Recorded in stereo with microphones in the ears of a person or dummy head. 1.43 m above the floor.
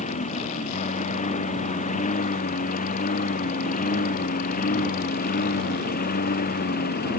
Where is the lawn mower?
40° left (ahead or behind); by 7.2 s 50° left (ahead or behind).